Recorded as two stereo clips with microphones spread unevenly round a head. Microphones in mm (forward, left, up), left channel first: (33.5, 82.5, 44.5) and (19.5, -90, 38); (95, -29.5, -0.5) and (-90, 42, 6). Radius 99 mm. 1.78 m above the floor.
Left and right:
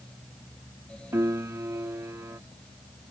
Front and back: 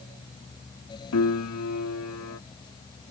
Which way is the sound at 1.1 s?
20° right.